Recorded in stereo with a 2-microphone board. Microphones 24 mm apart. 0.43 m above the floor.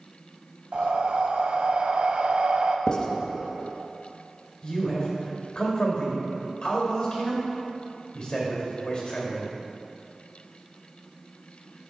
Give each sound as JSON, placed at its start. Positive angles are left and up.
{"t": 0.7, "sound": "breathing", "side_deg": -55, "distance_m": 0.5}
{"t": 2.9, "sound": "writing", "side_deg": 45, "distance_m": 0.6}
{"t": 4.6, "sound": "a man speaking", "side_deg": 45, "distance_m": 1.9}